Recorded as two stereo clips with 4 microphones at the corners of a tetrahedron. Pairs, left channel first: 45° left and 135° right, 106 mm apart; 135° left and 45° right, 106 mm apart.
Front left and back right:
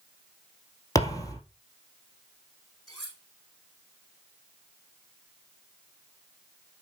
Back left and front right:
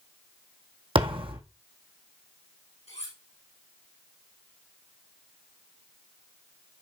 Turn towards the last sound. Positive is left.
turn(degrees=130)